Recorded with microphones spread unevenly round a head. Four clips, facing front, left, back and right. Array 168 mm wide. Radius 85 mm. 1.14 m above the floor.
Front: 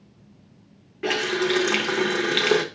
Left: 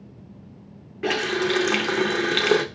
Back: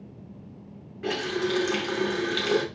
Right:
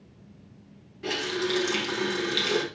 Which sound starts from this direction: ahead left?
A running tap, at 1.0 s.